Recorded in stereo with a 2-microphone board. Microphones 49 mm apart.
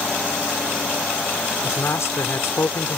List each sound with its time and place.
1.6 s a man speaking: 70° left (ahead or behind)